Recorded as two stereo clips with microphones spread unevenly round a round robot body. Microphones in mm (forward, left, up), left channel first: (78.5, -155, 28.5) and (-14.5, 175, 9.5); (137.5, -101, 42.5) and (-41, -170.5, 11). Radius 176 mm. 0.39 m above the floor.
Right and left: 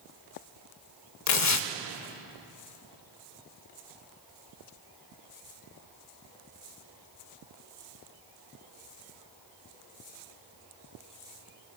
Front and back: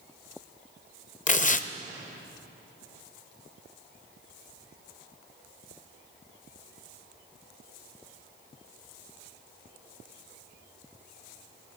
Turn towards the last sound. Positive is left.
turn(degrees=-35)